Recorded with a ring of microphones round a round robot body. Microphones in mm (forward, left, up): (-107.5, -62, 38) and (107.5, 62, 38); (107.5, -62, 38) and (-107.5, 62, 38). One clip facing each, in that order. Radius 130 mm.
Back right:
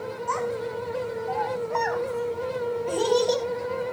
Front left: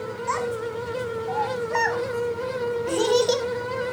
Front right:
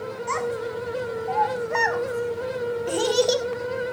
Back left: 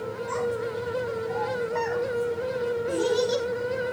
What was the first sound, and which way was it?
A child speaking, 25° right.